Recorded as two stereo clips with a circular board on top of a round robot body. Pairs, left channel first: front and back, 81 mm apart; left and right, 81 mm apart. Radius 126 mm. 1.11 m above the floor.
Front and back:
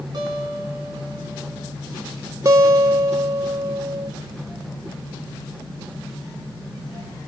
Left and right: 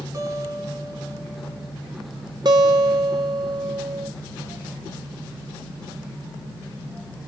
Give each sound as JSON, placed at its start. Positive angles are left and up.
{"t": 0.1, "sound": "a guitar", "azimuth_deg": -140, "distance_m": 6.5}
{"t": 2.5, "sound": "a guitar", "azimuth_deg": -125, "distance_m": 3.0}